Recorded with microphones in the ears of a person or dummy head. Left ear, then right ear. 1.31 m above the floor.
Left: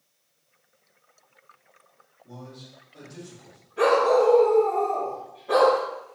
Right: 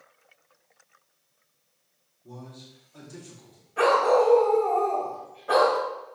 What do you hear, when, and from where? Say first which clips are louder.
2.2 s a man speaking: left 1 dB; 60° right (ahead or behind), 3 m
3.8 s a dog barking: left 1 dB; 45° right (ahead or behind), 2.5 m